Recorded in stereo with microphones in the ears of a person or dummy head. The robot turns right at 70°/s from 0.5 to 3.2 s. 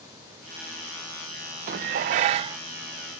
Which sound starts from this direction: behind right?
Dishes clattering, at 1.7 s.